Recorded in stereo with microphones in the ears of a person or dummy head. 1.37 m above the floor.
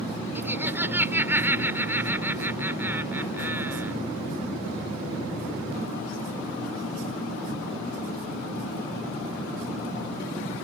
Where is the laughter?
10° right (ahead or behind).